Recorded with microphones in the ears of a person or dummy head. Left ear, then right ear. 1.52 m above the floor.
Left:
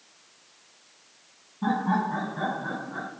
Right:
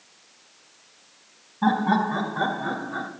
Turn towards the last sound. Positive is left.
turn(degrees=-70)  # may be behind; listen again after turning